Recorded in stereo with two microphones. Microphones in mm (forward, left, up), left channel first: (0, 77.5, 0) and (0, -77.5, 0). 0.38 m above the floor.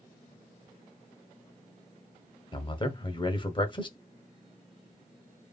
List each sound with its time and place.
2.5 s a man speaking: 30° left (ahead or behind), 0.9 m